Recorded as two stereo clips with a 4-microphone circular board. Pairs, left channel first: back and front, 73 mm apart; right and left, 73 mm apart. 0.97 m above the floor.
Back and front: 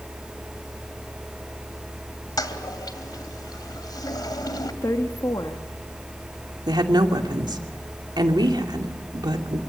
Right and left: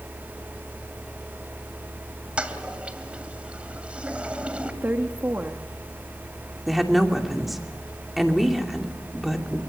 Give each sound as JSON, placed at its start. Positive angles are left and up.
{"t": 2.4, "sound": "a toilet flushing", "azimuth_deg": 165, "distance_m": 2.0}
{"t": 4.8, "sound": "a woman speaking", "azimuth_deg": 150, "distance_m": 1.5}
{"t": 6.7, "sound": "a woman speaking", "azimuth_deg": 0, "distance_m": 2.5}